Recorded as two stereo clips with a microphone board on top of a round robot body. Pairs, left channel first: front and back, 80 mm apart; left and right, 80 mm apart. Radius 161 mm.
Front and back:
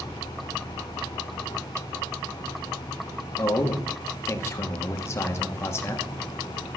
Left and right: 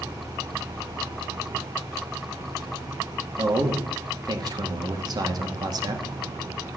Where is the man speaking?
60° right, 1.9 m.